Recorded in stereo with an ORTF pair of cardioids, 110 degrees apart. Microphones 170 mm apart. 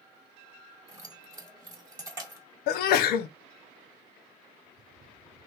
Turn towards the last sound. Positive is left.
turn(degrees=70)